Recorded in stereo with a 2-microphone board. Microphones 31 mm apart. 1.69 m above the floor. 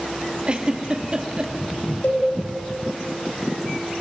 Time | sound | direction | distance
0.5 | a giggle | 30° right (ahead or behind) | 2 m
2.0 | a cowbell | 55° left (ahead or behind) | 4.5 m